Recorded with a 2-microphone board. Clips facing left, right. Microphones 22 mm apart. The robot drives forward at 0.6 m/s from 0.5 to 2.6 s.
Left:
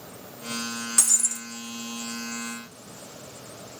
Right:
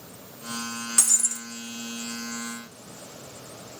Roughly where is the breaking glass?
Centre.